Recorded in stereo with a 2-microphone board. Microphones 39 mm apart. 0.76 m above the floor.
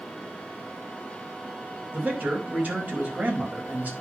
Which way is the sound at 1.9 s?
40° right (ahead or behind).